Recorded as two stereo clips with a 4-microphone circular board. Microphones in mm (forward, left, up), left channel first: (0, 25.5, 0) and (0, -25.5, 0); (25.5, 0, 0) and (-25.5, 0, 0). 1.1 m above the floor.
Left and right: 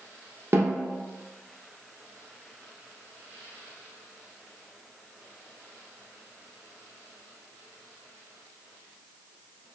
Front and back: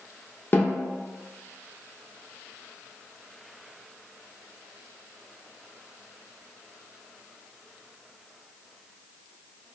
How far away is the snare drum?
About 0.6 m.